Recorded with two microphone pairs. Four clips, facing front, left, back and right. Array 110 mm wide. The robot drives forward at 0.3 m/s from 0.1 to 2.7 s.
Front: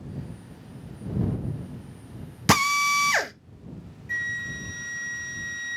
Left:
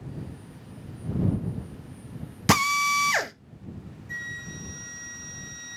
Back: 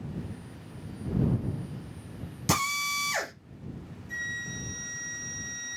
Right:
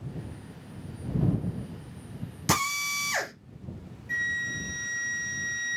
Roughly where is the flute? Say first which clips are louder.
Right 7 dB, front 6 dB; ahead right.